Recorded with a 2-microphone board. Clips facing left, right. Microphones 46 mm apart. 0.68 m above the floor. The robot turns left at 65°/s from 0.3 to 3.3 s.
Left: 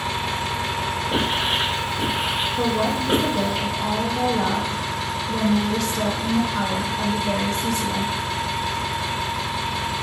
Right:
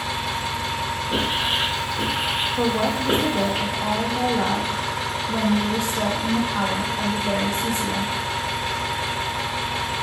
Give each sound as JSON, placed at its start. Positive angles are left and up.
{"t": 0.0, "sound": "an engine running", "azimuth_deg": 130, "distance_m": 0.9}
{"t": 1.1, "sound": "writing", "side_deg": 15, "distance_m": 1.5}
{"t": 2.6, "sound": "a woman speaking", "azimuth_deg": -100, "distance_m": 0.6}